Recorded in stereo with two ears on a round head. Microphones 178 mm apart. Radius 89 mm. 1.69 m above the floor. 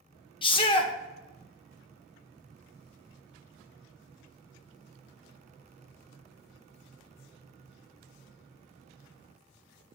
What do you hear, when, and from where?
0.4 s a shout: 25° left (ahead or behind), 1.1 m